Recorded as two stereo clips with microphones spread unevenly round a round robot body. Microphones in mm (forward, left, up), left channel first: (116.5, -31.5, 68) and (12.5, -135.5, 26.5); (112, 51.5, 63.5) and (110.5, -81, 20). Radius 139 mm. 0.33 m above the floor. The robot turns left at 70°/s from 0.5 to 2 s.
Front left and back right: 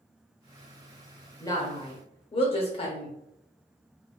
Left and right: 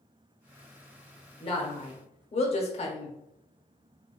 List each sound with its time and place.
1.4 s a woman speaking: 125° left, 0.9 m; by 3.1 s 85° left, 0.9 m